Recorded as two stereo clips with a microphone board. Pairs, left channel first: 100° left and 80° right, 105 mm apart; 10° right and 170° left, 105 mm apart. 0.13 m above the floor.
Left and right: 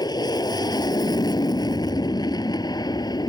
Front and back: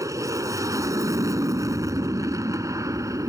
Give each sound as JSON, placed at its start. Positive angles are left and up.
{"t": 0.0, "sound": "an aircraft", "azimuth_deg": 125}